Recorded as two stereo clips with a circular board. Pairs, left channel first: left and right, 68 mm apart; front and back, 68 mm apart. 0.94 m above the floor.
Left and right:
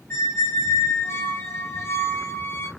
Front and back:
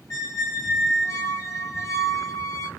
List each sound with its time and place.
0.1 s a squeak: 35° left, 0.7 m